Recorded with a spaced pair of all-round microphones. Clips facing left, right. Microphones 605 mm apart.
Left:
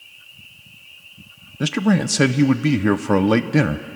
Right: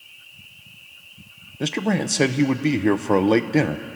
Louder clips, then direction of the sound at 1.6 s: Left 4 dB; 40° left (ahead or behind).